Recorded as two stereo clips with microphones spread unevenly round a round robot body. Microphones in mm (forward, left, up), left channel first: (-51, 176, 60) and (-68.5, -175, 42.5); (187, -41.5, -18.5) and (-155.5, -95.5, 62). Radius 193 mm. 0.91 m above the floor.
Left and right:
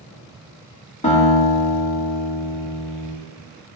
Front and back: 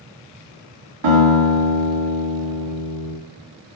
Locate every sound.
1.0 s a guitar: 160° left, 3 m